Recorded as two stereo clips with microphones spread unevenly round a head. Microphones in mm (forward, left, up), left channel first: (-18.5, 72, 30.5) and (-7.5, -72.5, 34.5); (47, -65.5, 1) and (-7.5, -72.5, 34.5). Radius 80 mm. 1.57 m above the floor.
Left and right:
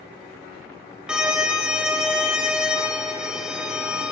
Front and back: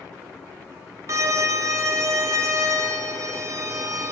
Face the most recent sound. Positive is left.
turn(degrees=-170)